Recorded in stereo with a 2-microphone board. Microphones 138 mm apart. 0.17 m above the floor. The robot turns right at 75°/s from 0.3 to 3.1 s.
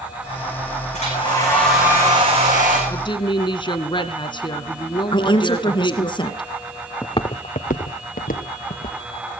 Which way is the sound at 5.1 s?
35° left (ahead or behind).